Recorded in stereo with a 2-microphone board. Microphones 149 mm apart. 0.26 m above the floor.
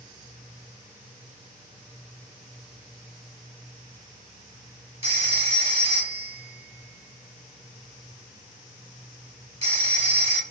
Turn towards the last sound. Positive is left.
turn(degrees=-45)  # may be behind; listen again after turning